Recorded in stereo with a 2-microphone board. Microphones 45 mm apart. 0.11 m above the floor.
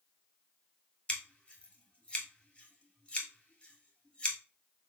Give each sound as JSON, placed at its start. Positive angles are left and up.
{"t": 1.1, "sound": "scissors", "side_deg": 20, "distance_m": 1.4}